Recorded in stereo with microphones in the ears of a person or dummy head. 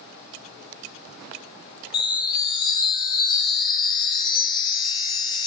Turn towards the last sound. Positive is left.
turn(degrees=20)  # may be behind; listen again after turning